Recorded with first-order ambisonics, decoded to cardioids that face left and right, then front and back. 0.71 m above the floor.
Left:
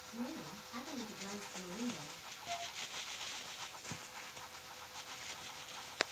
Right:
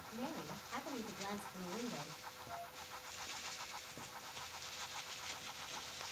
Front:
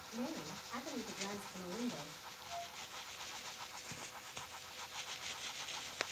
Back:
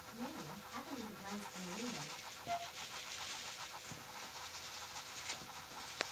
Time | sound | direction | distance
0.1 | a woman speaking | 35° right | 2 m
2.5 | a flute | 145° left | 0.8 m